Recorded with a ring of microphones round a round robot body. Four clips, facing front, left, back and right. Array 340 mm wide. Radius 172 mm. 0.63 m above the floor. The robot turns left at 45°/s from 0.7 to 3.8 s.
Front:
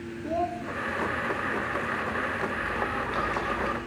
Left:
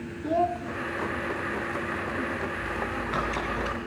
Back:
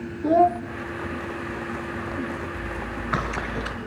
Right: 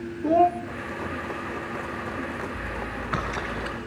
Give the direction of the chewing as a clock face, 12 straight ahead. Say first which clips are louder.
Left 2 dB, front 2 dB; 4 o'clock.